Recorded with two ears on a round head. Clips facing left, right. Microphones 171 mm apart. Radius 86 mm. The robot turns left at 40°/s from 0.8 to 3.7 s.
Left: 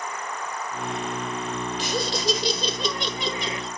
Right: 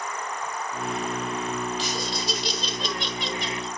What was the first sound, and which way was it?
Laughter, 135° left.